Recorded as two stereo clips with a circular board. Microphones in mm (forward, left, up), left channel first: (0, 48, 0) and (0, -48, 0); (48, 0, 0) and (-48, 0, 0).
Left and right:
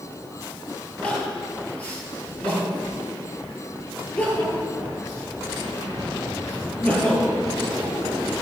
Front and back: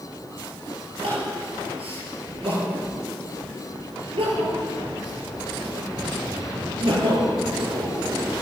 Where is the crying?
165° left, 7.5 m.